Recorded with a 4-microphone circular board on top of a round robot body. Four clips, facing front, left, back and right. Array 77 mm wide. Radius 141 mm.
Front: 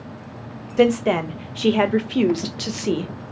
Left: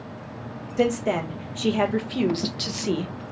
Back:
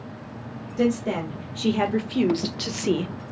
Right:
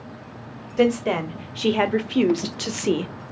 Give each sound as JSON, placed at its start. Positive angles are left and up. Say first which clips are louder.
{"t": 0.8, "sound": "a woman speaking", "louder": "right 3 dB, front 6 dB", "azimuth_deg": -20, "distance_m": 1.6}